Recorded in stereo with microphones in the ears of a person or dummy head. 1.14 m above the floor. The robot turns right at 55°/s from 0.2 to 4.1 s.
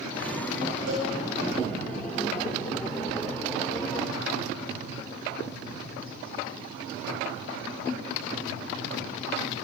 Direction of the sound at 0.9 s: 85° right.